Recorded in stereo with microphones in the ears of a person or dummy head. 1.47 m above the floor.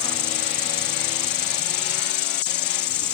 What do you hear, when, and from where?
0.0 s an insect: 35° left (ahead or behind)